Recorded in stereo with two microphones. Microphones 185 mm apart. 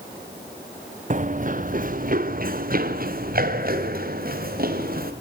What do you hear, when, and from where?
1.1 s running footsteps: 45° right (ahead or behind), 0.7 m; by 5.1 s 55° right (ahead or behind), 3 m